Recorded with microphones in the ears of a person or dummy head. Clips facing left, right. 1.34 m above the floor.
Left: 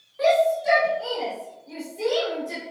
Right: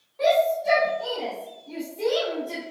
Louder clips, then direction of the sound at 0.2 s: Left 1 dB; 15° left (ahead or behind).